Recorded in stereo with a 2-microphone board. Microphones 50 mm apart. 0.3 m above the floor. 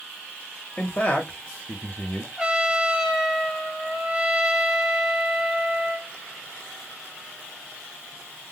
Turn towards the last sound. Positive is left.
turn(degrees=-10)  # may be behind; listen again after turning